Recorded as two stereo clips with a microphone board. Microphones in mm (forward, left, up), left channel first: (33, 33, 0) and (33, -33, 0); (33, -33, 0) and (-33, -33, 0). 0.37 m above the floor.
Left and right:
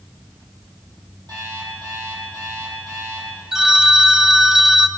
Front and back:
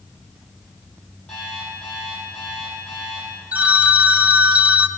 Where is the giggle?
I don't hear a giggle.